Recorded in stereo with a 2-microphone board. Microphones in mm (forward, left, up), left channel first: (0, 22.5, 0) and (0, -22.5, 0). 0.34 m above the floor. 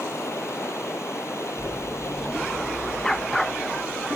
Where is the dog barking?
10° left (ahead or behind).